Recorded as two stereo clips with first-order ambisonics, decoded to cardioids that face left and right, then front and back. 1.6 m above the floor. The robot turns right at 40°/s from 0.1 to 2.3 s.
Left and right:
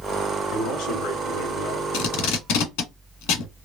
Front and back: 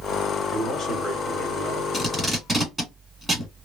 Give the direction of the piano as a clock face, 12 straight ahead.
No piano in this recording.